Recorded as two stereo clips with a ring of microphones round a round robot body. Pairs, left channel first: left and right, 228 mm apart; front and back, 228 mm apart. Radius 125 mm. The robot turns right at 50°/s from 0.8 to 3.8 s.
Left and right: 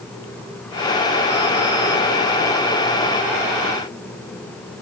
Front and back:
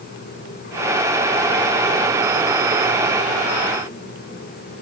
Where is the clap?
No clap in this recording.